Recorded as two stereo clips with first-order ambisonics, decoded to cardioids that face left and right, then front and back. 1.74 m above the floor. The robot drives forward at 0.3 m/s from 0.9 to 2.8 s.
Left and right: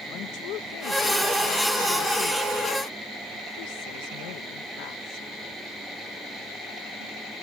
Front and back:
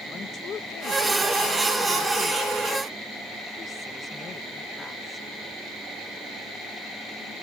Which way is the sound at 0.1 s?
60° left.